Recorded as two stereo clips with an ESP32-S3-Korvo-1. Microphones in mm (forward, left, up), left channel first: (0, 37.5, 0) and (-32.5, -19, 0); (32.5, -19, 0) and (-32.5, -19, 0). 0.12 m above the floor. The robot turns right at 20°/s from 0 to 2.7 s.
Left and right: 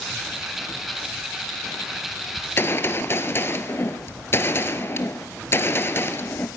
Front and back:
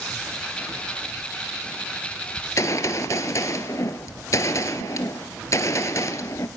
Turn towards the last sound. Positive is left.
turn(degrees=20)